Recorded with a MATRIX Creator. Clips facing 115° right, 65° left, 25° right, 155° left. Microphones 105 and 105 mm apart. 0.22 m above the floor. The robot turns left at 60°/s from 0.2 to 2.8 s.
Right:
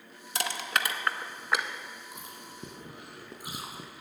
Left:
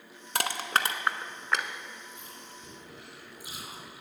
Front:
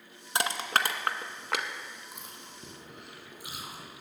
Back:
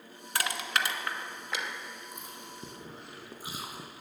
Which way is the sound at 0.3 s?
45° left.